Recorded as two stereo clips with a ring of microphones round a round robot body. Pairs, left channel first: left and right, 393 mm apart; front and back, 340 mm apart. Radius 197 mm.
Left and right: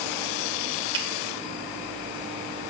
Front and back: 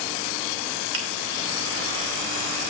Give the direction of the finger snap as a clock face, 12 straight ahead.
6 o'clock.